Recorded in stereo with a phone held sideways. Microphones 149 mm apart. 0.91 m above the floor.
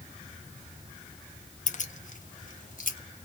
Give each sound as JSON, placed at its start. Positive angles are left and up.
{"t": 1.7, "sound": "keys jangling", "side_deg": 60, "distance_m": 0.6}